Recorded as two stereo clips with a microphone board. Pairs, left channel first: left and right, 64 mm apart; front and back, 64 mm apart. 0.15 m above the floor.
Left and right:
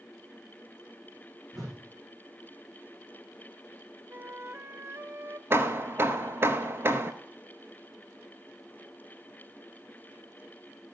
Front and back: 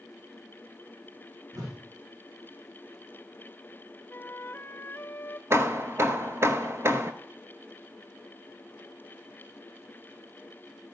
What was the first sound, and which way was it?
A whoosh, straight behind.